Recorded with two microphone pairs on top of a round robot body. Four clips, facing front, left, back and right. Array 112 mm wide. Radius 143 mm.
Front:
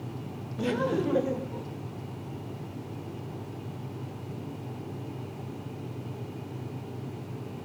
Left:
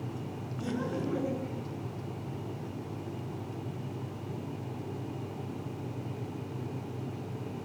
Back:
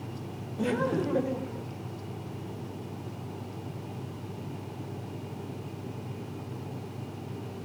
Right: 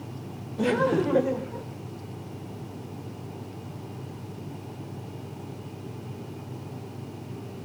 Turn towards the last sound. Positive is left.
turn(degrees=-65)